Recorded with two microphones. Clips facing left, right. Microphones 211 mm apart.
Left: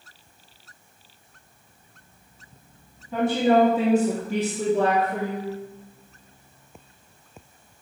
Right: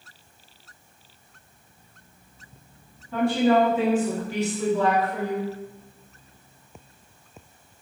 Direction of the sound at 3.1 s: 20° left (ahead or behind).